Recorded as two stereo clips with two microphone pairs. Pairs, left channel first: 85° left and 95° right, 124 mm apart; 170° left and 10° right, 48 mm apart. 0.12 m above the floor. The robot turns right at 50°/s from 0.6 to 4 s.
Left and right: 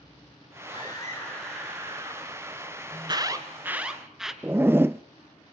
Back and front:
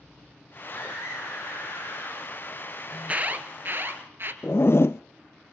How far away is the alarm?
About 2 m.